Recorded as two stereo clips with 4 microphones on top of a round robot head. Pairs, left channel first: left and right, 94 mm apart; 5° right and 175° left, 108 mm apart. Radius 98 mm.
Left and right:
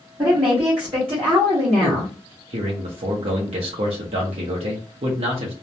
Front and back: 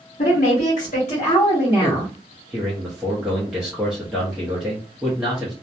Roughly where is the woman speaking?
Ahead right.